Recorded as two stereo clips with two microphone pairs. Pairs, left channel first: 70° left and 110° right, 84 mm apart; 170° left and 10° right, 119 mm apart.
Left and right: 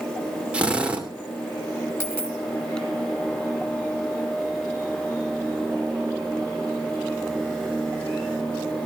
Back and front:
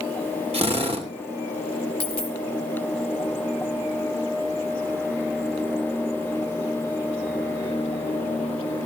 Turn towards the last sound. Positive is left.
turn(degrees=130)